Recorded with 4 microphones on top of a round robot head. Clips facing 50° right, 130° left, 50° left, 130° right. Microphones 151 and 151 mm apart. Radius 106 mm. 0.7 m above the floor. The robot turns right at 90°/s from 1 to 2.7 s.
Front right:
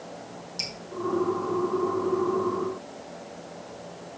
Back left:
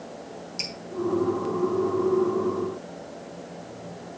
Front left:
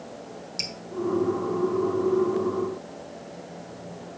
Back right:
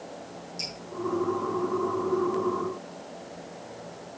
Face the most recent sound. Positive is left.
turn(degrees=-160)